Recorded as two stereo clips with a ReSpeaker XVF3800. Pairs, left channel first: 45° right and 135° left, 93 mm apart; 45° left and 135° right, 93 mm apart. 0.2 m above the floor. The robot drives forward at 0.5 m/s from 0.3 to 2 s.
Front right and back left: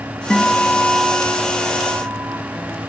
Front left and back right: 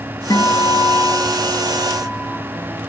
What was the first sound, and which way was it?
A guitar, 30° left.